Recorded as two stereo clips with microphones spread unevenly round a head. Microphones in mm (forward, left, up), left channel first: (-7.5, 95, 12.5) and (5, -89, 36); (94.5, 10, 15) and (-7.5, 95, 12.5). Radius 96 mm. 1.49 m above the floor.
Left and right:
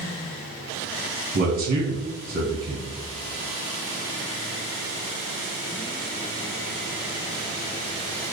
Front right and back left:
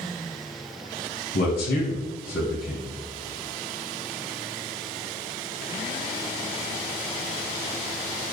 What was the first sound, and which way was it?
A man speaking, 40° right.